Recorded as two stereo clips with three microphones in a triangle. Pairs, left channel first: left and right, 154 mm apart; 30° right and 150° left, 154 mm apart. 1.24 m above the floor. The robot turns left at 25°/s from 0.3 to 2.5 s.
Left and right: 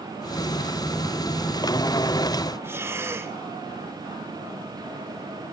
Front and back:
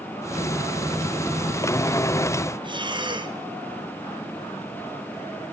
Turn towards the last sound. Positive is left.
turn(degrees=-160)